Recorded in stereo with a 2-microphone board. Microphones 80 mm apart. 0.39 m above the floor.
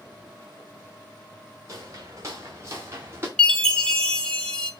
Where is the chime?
10° left (ahead or behind), 1.6 m.